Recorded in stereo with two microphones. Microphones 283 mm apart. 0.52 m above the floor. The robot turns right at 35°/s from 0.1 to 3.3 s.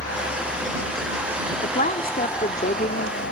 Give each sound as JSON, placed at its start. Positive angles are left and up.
{"t": 0.0, "sound": "a helicopter", "azimuth_deg": -65}
{"t": 1.6, "sound": "a woman speaking", "azimuth_deg": 65}